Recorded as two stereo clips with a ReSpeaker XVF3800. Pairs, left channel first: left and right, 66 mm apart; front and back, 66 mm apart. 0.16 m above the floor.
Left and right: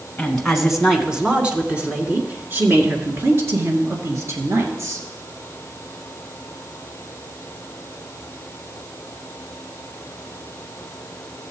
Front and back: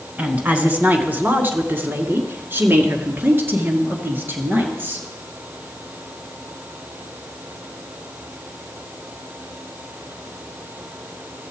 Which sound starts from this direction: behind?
A woman speaking, at 0.2 s.